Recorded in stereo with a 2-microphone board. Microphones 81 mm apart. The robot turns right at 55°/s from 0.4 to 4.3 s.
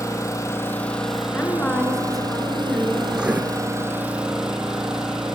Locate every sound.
0.0 s an engine running: 140° left, 1.4 m; by 5.4 s 5° right, 1.4 m
1.3 s a woman speaking: 20° left (ahead or behind), 1.2 m; by 3.0 s 15° right (ahead or behind), 1.2 m
3.1 s writing: 10° right (ahead or behind), 0.6 m; by 3.4 s 20° right (ahead or behind), 0.6 m